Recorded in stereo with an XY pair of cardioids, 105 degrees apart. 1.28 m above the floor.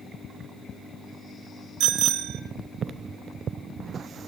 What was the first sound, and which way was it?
A bicycle bell, 65° right.